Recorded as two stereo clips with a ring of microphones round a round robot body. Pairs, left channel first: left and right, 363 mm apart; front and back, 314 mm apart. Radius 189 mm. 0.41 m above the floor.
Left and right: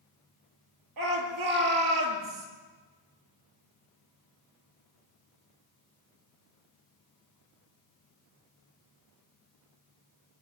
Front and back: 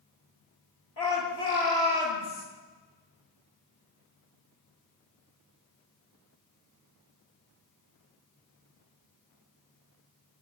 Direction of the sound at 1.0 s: 55° right.